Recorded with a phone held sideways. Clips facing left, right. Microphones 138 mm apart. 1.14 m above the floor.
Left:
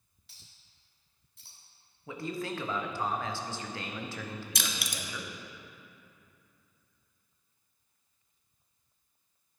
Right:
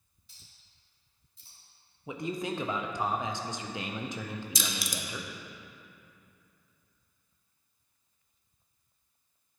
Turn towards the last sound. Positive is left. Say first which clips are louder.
# right 2 dB
turn(degrees=70)  # may be behind; listen again after turning